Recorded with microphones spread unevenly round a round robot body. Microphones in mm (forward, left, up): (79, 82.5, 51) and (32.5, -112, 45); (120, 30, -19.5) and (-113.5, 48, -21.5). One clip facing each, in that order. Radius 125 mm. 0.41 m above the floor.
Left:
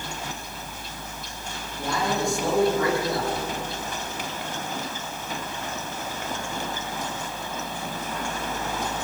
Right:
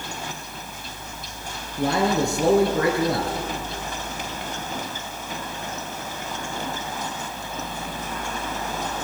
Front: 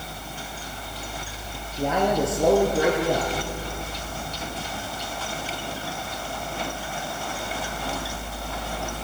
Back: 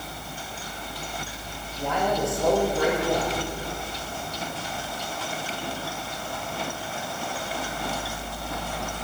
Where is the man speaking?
75° right, 6.5 m.